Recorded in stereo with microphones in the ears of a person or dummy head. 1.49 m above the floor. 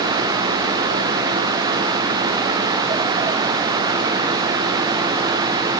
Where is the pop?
I don't hear a pop.